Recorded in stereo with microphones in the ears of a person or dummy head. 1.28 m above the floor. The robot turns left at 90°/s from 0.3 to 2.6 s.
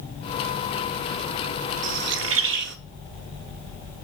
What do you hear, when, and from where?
1.8 s a bird: 45° right, 0.8 m; by 2.8 s 110° right, 0.8 m